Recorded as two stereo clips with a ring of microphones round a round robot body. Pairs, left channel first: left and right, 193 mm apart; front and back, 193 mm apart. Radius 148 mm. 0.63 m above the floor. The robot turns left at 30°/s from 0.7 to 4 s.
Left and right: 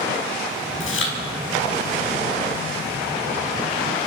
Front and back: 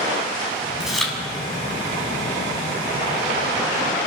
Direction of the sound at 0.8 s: 95° left.